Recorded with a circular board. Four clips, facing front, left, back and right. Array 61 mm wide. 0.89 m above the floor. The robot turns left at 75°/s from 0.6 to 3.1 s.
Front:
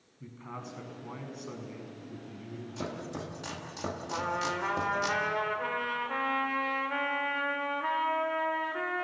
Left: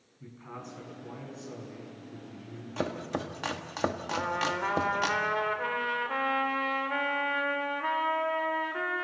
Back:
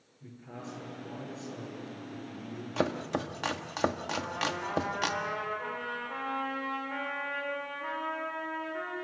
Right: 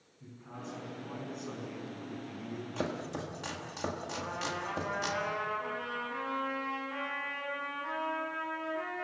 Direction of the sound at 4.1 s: 65° left.